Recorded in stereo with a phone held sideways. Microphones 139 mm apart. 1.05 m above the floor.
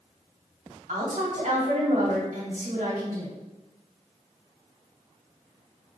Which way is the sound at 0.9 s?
75° right (ahead or behind).